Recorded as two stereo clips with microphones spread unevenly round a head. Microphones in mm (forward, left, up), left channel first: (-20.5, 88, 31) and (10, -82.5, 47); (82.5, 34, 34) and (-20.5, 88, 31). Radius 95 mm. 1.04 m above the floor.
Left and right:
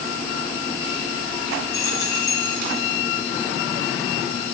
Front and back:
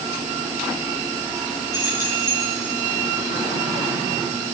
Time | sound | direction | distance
1.7 | keys jangling | 25° left | 9 m